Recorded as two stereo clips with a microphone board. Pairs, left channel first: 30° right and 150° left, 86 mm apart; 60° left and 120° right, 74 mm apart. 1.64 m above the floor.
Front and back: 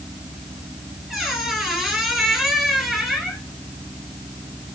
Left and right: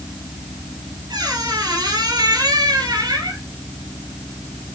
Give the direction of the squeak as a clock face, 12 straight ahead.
4 o'clock.